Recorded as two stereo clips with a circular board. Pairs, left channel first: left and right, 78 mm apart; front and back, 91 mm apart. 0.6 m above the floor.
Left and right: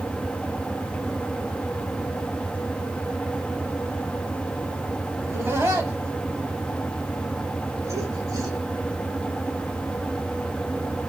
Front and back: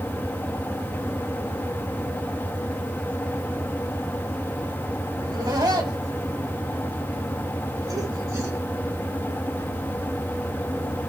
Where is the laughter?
150° right, 5 m; by 8.6 s 130° right, 2.5 m.